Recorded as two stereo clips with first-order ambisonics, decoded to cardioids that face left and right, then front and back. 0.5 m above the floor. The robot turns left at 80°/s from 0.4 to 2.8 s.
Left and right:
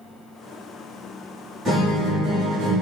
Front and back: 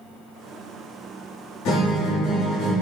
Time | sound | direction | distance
1.6 | a guitar | 20° right | 1.1 m